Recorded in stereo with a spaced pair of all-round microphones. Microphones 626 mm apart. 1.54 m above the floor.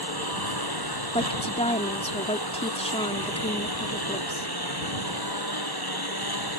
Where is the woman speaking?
10° left (ahead or behind).